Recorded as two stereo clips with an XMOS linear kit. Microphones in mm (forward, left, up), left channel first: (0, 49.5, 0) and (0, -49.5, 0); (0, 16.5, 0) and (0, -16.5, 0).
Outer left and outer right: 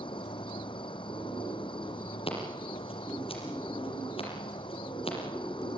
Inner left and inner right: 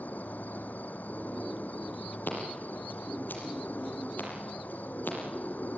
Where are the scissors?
75° left (ahead or behind), 5.5 m.